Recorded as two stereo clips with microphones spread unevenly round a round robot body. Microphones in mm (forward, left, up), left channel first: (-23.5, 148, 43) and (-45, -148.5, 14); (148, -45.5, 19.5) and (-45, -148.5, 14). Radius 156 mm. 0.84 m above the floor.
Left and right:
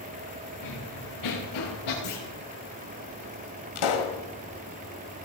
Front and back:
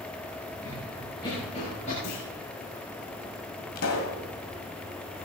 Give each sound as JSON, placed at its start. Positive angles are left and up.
{"t": 0.6, "sound": "running footsteps", "azimuth_deg": 110, "distance_m": 7.0}
{"t": 2.0, "sound": "a clunk", "azimuth_deg": 55, "distance_m": 6.0}
{"t": 3.8, "sound": "a pop", "azimuth_deg": 75, "distance_m": 1.8}